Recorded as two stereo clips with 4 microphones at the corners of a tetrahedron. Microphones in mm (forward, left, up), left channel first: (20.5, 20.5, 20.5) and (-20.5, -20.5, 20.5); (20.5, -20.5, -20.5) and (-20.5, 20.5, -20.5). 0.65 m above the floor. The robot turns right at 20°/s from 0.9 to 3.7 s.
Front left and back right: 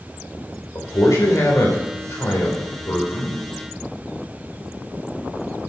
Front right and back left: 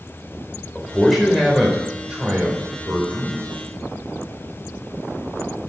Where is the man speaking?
40° left, 3 m; by 3.4 s 90° left, 3 m.